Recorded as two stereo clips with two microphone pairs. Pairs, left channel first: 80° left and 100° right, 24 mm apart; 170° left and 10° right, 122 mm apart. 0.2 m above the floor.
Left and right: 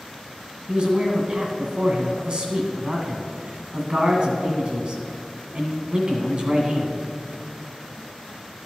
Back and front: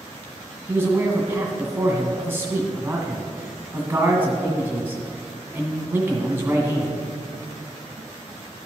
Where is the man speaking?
75° right, 1.6 m.